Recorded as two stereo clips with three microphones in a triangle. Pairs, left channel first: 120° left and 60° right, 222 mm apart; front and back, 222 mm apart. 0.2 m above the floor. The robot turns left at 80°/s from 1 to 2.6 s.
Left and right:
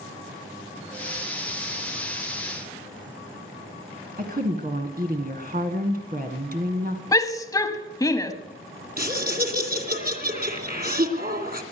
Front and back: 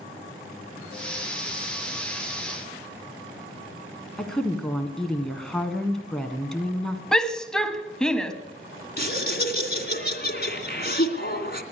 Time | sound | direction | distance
4.2 | a woman speaking | 85° right | 1.6 m
7.1 | a shout | 80° left | 1.2 m
9.0 | laughter | 30° right | 2.5 m